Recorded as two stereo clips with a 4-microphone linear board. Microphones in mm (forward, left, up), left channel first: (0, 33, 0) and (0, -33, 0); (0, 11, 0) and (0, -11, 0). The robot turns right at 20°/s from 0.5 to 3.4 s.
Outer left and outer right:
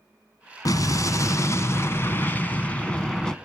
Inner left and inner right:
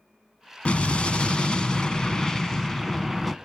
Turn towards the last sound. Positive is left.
turn(degrees=175)